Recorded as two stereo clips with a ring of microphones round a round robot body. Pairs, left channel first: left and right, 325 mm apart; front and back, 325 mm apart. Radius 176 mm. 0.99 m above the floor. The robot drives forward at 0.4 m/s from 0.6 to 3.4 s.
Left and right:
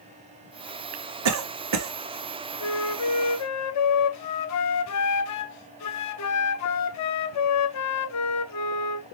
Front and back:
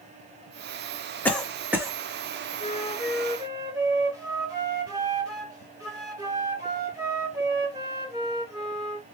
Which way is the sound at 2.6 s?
65° left.